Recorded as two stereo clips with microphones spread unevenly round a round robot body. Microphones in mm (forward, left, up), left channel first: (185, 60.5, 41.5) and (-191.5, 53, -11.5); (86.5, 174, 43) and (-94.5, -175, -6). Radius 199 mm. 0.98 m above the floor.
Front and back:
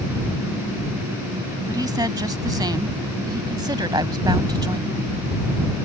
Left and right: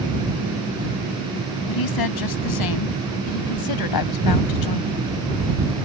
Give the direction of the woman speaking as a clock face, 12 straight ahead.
9 o'clock.